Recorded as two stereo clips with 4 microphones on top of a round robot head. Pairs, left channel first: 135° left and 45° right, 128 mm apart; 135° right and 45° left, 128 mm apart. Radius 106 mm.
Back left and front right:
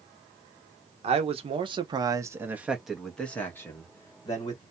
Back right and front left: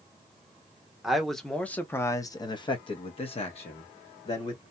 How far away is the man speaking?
About 1.0 m.